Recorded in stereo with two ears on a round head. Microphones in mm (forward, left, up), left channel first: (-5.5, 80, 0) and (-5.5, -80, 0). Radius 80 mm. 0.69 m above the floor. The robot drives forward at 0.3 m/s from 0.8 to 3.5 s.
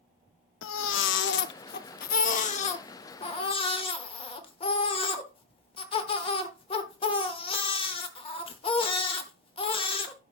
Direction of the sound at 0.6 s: 85° left.